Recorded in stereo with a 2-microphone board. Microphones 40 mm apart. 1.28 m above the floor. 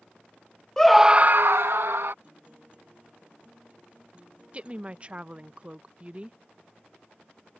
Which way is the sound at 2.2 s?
30° right (ahead or behind).